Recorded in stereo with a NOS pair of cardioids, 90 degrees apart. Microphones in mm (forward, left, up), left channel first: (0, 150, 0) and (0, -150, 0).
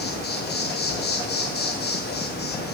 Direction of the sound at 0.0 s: 35° left.